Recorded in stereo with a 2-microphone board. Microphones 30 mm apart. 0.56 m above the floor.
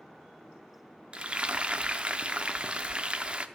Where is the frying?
35° right (ahead or behind), 0.6 m.